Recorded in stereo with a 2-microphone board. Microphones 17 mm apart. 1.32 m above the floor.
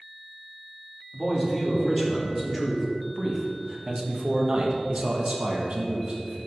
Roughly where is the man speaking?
Centre.